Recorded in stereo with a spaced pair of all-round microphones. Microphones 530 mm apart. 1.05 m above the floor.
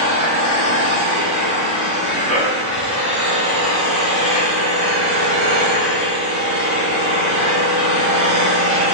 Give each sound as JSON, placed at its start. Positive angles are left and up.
{"t": 0.0, "sound": "an engine running", "side_deg": -85, "distance_m": 4.0}